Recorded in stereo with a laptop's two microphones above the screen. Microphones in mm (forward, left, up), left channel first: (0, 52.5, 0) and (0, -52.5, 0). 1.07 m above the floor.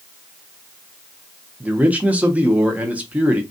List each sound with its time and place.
1.6 s a man speaking: 15° right (ahead or behind), 1.0 m